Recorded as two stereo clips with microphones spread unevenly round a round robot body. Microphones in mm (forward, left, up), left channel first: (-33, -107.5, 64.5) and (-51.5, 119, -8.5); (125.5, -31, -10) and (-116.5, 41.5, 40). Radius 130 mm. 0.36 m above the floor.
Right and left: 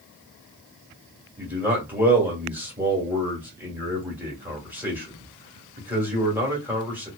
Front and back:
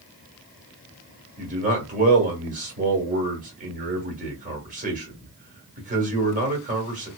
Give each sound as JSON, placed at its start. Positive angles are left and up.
{"t": 1.4, "sound": "a man speaking", "azimuth_deg": 115, "distance_m": 1.3}